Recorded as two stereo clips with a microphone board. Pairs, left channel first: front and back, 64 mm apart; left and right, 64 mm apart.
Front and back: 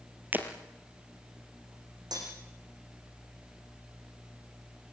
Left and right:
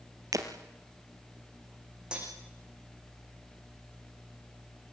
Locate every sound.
0.3 s breaking glass: 115° right, 3 m
2.1 s cutlery clinking: 165° right, 10 m